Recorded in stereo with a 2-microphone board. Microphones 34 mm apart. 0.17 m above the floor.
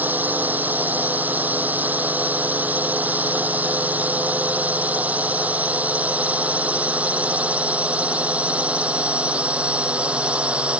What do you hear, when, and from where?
0.0 s a drone: 60° right (ahead or behind); by 10.8 s 40° right (ahead or behind)